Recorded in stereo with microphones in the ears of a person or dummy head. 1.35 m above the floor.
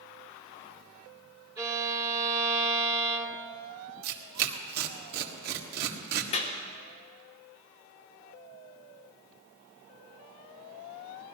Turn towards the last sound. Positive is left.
turn(degrees=30)  # may be behind; listen again after turning